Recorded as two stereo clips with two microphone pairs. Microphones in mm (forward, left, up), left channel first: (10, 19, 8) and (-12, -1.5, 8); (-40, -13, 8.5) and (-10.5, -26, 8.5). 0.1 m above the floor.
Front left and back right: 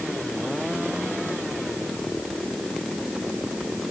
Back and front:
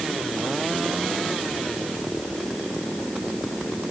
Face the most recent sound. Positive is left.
No sound to turn to.